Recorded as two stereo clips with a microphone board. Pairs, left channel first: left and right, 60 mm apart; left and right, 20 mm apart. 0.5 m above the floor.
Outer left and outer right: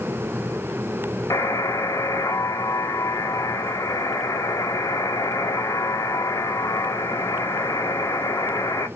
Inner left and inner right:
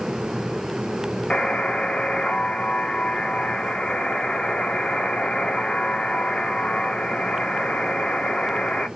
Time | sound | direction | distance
1.3 | a buzzer | 65° left (ahead or behind) | 1.0 m